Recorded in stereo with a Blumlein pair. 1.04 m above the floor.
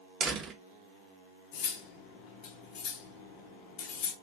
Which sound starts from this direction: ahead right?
A door slam, at 0.2 s.